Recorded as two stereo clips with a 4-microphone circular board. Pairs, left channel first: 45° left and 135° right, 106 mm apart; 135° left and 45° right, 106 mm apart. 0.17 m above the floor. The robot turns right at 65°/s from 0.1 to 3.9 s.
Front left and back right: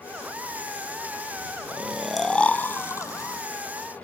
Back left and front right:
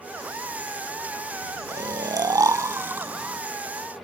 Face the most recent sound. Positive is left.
turn(degrees=70)